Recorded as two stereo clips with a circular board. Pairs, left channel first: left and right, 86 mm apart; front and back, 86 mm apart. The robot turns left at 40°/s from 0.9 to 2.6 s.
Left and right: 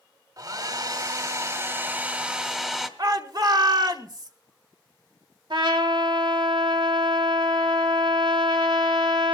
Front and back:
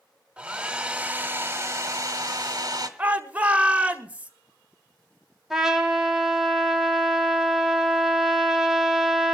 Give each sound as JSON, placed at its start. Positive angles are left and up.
{"t": 0.4, "sound": "a hair dryer", "azimuth_deg": -105, "distance_m": 1.6}
{"t": 3.0, "sound": "a shout", "azimuth_deg": -110, "distance_m": 1.6}
{"t": 5.5, "sound": "a trumpet", "azimuth_deg": -95, "distance_m": 2.0}